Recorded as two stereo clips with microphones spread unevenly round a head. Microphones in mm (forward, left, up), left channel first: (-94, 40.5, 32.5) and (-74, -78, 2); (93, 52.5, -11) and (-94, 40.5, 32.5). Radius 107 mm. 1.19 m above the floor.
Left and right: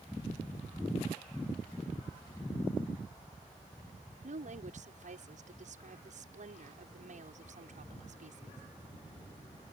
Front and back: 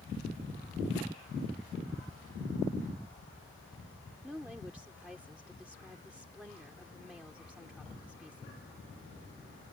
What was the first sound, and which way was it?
A woman speaking, 90° right.